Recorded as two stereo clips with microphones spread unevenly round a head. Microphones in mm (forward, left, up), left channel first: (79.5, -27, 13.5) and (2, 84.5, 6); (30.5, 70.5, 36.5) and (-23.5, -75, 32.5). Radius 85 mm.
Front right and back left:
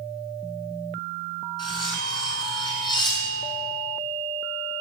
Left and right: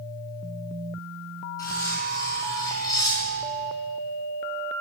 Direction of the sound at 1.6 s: Straight ahead.